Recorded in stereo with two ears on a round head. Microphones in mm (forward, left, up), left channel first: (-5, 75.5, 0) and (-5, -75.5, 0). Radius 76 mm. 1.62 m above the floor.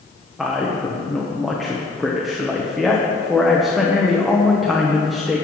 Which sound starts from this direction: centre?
A man speaking, at 0.4 s.